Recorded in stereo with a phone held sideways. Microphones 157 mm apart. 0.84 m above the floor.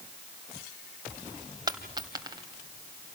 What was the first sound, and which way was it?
A dropped coin, 25° right (ahead or behind).